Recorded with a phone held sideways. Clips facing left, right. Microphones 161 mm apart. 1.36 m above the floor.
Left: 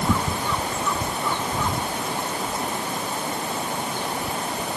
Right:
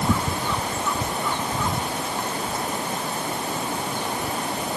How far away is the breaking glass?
No breaking glass in this recording.